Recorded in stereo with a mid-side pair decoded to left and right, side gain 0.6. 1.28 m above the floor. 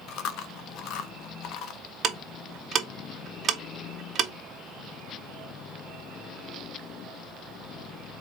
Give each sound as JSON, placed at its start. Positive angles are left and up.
{"t": 0.1, "sound": "chewing", "azimuth_deg": 65, "distance_m": 0.6}
{"t": 2.0, "sound": "ticking", "azimuth_deg": -45, "distance_m": 0.9}